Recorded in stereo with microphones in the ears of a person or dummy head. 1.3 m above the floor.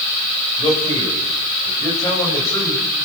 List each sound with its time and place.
0.6 s a man speaking: 25° left (ahead or behind), 8 m; by 3.1 s 10° left (ahead or behind), 8.5 m